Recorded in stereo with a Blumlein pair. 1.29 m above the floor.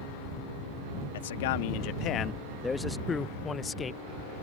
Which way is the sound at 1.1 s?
60° left.